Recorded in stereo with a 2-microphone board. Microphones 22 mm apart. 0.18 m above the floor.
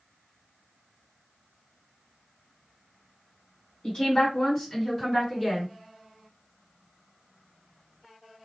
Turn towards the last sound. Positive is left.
turn(degrees=15)  # may be behind; listen again after turning